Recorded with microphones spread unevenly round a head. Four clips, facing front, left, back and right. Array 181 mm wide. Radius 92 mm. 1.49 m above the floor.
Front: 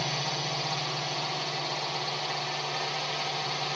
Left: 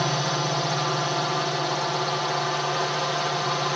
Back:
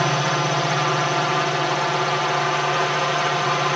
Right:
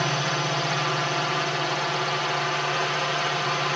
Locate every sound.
0.0 s a drone: straight behind